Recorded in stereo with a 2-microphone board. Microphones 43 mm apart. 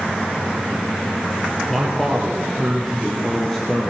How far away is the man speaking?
About 3 m.